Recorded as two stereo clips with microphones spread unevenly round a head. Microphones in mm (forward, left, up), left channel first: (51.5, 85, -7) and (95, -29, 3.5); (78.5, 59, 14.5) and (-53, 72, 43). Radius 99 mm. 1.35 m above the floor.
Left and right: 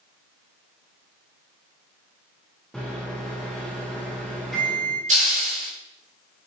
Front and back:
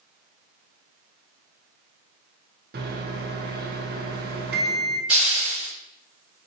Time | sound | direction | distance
2.7 | a microwave | 160° right | 1.1 m
5.1 | a hiss | 105° right | 4 m